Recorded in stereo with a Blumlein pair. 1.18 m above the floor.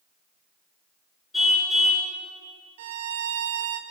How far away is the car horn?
About 6.5 m.